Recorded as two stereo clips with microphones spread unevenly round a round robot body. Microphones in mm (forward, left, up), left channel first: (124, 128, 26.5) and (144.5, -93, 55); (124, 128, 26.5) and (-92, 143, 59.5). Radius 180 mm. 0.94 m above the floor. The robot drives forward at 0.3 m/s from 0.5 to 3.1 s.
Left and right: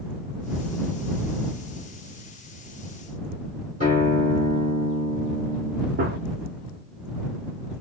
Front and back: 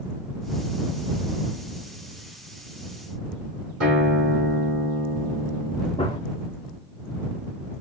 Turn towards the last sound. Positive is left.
turn(degrees=-80)